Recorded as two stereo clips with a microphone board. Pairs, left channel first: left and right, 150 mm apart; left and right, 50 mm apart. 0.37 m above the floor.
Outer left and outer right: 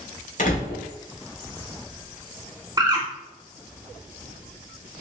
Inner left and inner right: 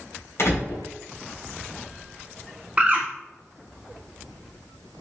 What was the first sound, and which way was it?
A door slam, 60° left (ahead or behind).